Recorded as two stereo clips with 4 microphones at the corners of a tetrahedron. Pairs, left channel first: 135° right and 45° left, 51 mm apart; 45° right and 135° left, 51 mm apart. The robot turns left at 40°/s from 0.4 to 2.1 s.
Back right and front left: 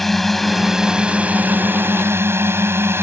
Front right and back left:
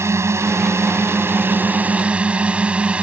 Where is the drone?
140° left; by 3.0 s 70° left.